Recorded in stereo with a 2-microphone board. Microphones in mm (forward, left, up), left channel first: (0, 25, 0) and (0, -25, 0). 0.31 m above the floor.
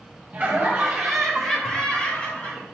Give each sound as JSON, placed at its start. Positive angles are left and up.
{"t": 0.3, "sound": "laughter", "side_deg": -20, "distance_m": 1.7}